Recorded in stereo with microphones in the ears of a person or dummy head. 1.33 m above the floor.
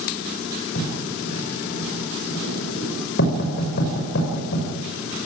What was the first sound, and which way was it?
Writing, 55° left (ahead or behind).